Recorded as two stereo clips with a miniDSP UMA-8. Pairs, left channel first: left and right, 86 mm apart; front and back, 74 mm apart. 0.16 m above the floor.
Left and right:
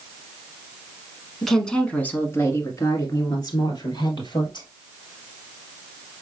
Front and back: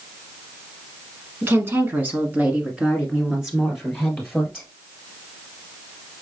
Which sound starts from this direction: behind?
A woman speaking, at 1.4 s.